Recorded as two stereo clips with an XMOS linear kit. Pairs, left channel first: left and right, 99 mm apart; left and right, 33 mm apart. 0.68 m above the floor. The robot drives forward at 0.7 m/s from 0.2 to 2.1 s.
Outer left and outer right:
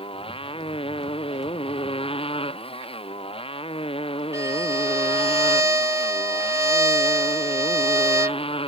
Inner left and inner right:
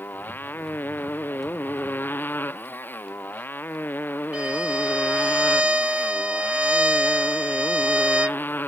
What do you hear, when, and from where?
0.0 s a motorcycle: 70° left (ahead or behind); by 8.7 s 75° left (ahead or behind)
4.3 s a violin: 35° right (ahead or behind)